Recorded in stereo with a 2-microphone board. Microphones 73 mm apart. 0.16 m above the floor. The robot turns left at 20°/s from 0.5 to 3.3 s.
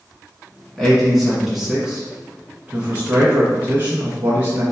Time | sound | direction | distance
0.8 | a man speaking | centre (ahead or behind) | 1.2 m